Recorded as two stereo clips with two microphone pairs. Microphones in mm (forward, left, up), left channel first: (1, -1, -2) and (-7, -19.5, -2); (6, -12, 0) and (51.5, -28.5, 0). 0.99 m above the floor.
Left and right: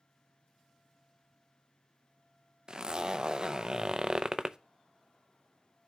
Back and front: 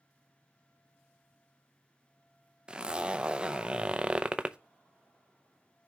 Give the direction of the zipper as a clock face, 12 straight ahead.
3 o'clock.